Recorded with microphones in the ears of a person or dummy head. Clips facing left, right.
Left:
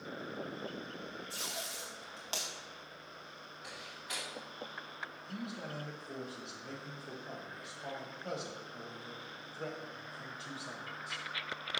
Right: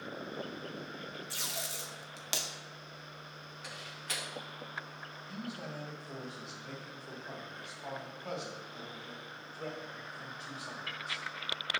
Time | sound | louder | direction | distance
1.3 | tape being pulled | right 1 dB | 20° right (ahead or behind) | 0.6 m
3.6 | a door slam | right 2 dB | 45° right (ahead or behind) | 1.2 m
5.3 | a man speaking | even | 20° left (ahead or behind) | 1.3 m